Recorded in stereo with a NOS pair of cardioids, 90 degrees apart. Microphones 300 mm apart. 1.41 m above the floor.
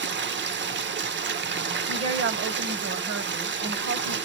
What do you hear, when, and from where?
0.0 s running water: 40° right, 0.8 m
1.9 s a woman speaking: 50° right, 1.2 m